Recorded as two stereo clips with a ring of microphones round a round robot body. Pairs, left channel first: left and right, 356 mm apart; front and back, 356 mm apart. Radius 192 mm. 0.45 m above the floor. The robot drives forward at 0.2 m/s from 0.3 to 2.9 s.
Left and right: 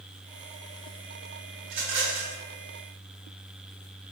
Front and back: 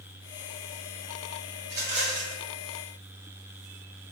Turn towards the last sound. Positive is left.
turn(degrees=-130)